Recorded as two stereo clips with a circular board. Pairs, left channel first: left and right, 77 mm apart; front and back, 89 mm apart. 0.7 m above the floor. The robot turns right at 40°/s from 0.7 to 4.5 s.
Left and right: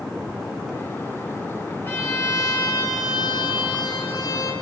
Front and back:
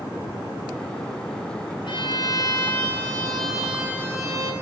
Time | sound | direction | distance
1.9 | a violin | 25° left | 5 m